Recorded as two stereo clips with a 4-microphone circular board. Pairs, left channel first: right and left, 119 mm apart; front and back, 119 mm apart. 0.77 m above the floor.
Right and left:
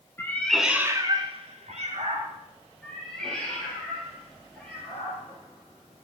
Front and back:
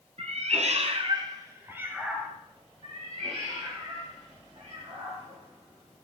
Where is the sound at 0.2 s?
160° right, 1.6 m; by 2.3 s 100° left, 2.5 m.